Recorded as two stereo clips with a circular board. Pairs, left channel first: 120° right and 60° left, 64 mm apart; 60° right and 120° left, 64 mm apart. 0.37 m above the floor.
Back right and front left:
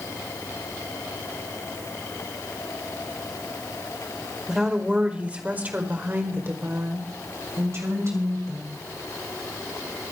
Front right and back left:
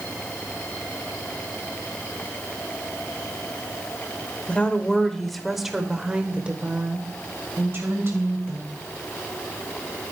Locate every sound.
4.5 s a woman speaking: 15° right, 1.5 m; by 8.8 s 85° left, 2.5 m